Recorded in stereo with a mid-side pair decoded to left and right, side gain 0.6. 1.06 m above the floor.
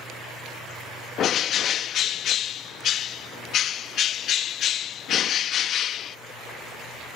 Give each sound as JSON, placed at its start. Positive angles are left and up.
{"t": 1.2, "sound": "a bird", "azimuth_deg": 55}